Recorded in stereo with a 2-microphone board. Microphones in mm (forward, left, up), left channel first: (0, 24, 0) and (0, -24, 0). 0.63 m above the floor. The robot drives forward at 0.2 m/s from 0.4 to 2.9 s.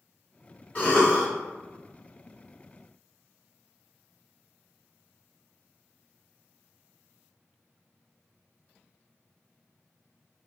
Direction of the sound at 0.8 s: 30° left (ahead or behind).